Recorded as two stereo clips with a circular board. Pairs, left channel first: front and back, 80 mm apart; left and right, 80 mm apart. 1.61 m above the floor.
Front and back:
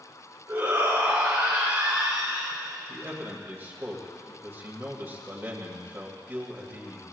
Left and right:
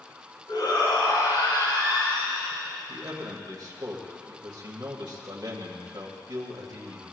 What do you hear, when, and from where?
0.5 s a shout: 115° left, 5 m; by 2.5 s 95° left, 4.5 m
2.9 s a man speaking: 120° right, 2 m